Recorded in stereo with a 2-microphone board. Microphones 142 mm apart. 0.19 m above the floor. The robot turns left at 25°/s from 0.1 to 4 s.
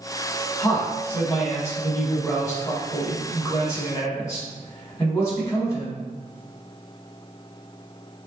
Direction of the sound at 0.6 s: 10° left (ahead or behind).